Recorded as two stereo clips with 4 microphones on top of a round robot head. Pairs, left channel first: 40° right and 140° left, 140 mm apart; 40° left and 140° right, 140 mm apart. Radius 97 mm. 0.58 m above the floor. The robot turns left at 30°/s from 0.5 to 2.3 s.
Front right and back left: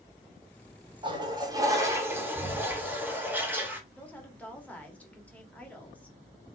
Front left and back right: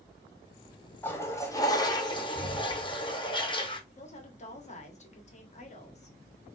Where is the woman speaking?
35° left, 1.7 m.